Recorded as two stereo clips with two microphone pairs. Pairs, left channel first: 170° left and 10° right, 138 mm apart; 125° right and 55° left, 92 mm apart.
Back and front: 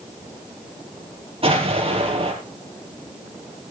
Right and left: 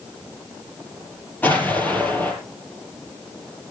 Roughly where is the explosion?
Ahead right.